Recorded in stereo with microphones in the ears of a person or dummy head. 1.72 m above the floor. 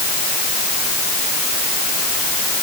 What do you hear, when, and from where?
Only background noise.